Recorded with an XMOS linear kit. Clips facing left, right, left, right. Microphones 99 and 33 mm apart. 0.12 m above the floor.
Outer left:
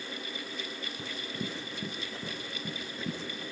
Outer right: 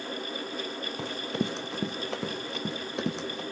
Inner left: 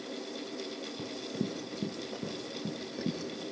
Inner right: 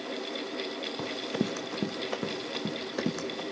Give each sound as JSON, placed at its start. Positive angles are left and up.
{"t": 1.0, "sound": "running footsteps", "side_deg": -80, "distance_m": 2.0}